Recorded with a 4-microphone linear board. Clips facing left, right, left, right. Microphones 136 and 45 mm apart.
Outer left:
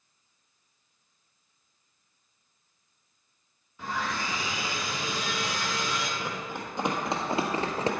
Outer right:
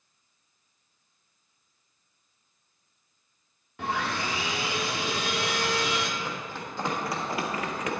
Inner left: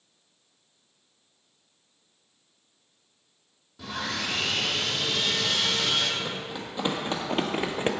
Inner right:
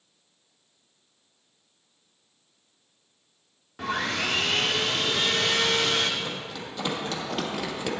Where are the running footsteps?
15° left (ahead or behind), 2.5 m; by 7.9 s 35° left (ahead or behind), 1.2 m.